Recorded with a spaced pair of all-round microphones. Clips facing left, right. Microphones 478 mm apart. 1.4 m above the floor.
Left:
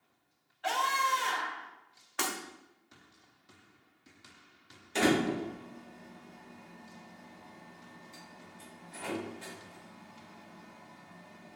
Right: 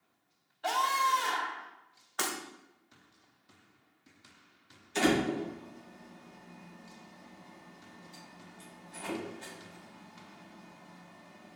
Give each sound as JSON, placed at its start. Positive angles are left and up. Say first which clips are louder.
{"t": 0.6, "sound": "a scream", "louder": "right 1 dB", "side_deg": -60, "distance_m": 1.0}
{"t": 2.2, "sound": "breaking glass", "louder": "left 1 dB", "side_deg": 45, "distance_m": 1.3}
{"t": 5.0, "sound": "a door slam", "louder": "even", "side_deg": 70, "distance_m": 1.6}